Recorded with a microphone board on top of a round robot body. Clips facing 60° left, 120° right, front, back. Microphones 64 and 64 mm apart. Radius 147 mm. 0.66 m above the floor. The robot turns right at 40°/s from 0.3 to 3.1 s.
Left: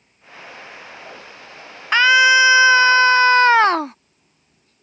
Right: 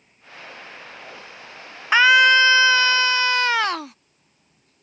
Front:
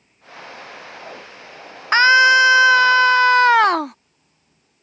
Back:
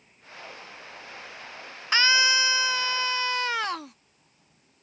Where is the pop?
I don't hear a pop.